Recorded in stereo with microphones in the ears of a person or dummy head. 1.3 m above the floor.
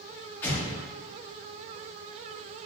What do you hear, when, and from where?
0.4 s an explosion: 10° left (ahead or behind), 0.8 m